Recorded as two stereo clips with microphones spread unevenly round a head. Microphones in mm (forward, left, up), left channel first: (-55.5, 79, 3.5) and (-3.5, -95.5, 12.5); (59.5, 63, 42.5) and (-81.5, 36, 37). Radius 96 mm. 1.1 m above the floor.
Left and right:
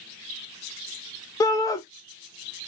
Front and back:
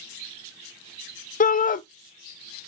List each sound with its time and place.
1.4 s a shout: 35° left, 0.6 m